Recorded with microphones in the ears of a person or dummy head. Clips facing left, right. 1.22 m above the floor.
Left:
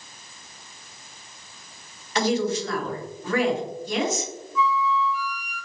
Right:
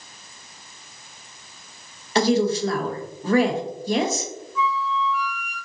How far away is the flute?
About 0.8 m.